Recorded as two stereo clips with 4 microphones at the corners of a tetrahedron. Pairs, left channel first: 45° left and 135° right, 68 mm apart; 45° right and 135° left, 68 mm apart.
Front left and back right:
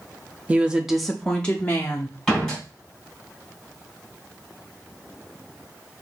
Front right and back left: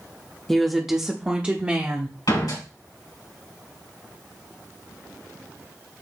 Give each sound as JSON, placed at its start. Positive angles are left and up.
{"t": 0.5, "sound": "a woman speaking", "azimuth_deg": -120, "distance_m": 0.7}
{"t": 2.3, "sound": "a door slam", "azimuth_deg": -45, "distance_m": 3.0}